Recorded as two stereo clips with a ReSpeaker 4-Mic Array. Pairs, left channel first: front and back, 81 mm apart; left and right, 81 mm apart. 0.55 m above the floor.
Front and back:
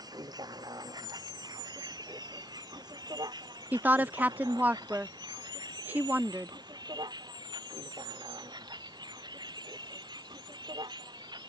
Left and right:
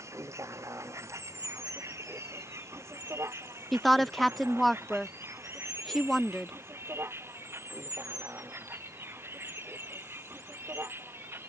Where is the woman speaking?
175° left.